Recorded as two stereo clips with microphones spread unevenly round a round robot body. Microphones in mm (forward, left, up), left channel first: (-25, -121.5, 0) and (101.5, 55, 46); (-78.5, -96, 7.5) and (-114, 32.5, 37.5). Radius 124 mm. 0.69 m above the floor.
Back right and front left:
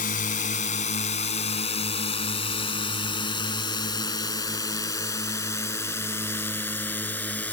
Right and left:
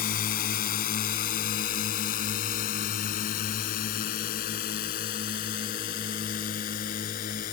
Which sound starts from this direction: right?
A drone, at 0.0 s.